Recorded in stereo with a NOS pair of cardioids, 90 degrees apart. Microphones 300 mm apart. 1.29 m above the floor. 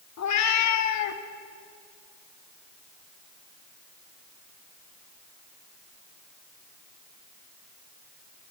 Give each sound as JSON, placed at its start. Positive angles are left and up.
{"t": 0.2, "sound": "a cat meowing", "azimuth_deg": 65, "distance_m": 2.0}